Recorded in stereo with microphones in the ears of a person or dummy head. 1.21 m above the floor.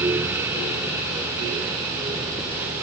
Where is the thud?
I don't hear a thud.